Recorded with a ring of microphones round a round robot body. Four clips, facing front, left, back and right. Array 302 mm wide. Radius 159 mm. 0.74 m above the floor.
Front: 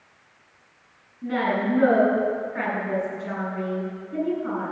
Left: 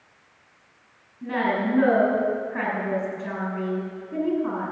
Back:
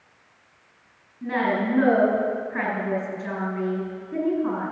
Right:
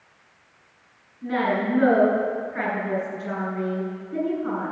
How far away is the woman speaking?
About 6.5 m.